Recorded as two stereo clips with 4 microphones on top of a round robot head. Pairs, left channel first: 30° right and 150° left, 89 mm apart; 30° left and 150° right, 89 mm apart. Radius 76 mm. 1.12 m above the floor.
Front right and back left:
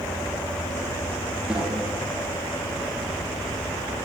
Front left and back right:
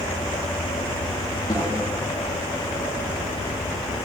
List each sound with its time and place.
1.5 s a snare drum: 70° left, 7 m